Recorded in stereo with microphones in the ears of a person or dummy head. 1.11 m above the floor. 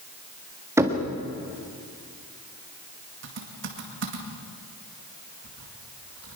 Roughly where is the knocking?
Centre.